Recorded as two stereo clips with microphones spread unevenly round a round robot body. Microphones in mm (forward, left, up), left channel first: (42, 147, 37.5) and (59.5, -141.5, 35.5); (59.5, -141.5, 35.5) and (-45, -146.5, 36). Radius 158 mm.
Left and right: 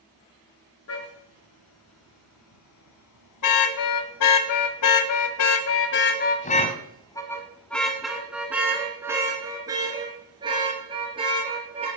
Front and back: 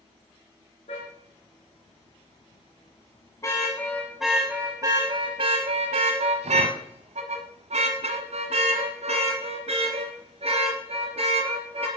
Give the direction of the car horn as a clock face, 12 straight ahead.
10 o'clock.